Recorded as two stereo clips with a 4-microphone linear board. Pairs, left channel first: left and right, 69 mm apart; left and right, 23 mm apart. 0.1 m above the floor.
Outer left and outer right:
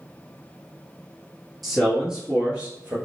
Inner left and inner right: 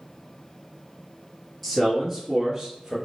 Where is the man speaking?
Centre (ahead or behind), 2 m; by 3.0 s 30° right (ahead or behind), 1.9 m.